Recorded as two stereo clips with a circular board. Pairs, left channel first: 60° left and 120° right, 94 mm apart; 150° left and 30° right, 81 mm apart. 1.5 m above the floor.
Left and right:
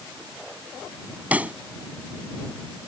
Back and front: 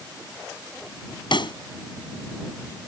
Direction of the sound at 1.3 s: 165° left.